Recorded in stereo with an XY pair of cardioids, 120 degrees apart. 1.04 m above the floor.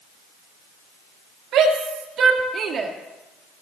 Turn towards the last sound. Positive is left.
turn(degrees=-35)